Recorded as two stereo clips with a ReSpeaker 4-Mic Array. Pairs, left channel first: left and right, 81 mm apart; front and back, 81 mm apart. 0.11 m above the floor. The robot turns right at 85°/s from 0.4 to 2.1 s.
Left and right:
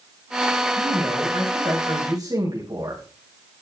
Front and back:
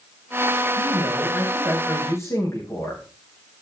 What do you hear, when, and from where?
0.8 s a man speaking: 165° right, 7.5 m; by 3.0 s 50° right, 7.5 m